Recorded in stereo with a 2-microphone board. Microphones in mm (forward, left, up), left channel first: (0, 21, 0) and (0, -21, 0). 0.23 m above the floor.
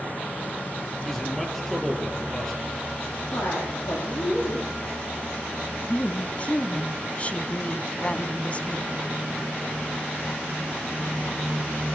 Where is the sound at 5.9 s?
30° left (ahead or behind), 1.9 m.